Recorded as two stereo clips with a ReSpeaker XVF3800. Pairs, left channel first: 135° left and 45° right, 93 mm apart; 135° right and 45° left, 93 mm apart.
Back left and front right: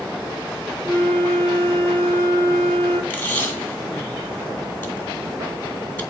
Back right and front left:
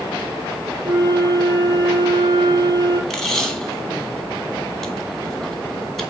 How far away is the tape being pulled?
About 1.7 m.